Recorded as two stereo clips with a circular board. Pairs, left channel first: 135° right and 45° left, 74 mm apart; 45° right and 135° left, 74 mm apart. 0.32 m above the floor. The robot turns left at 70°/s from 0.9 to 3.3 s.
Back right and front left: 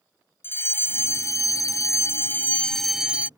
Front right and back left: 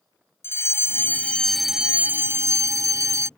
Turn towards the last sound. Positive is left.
turn(degrees=105)